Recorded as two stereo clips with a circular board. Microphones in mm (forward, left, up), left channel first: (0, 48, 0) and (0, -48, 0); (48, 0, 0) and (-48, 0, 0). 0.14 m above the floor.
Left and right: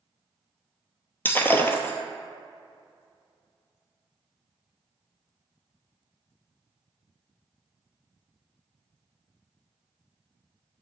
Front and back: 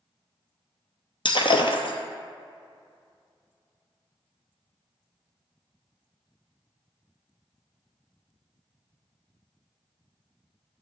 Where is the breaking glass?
20° left, 0.8 m.